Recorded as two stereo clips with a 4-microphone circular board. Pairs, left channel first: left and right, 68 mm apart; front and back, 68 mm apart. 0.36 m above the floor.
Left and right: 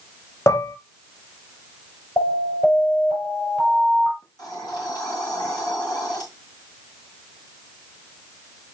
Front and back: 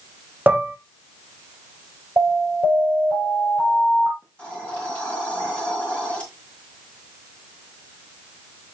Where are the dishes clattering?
120° left, 1.0 m.